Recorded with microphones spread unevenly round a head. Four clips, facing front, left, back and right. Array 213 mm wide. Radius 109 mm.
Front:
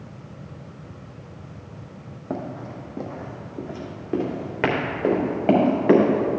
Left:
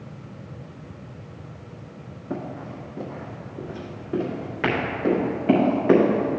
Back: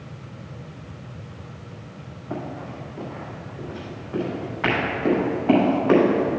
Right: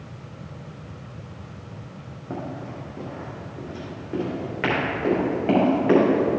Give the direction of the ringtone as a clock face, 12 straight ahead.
I don't hear a ringtone.